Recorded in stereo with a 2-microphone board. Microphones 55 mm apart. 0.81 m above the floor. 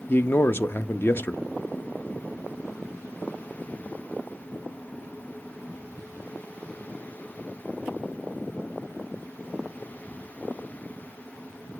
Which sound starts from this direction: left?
A man speaking, at 0.1 s.